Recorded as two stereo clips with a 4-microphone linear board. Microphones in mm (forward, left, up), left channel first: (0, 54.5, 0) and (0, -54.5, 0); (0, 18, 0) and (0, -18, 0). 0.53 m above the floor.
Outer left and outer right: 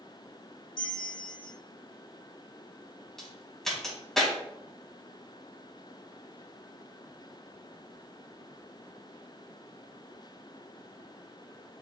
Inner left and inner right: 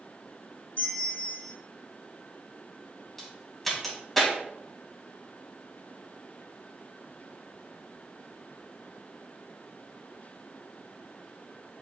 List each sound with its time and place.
0.8 s a bell: 40° left (ahead or behind), 3.5 m
3.2 s a crack: 5° left (ahead or behind), 3 m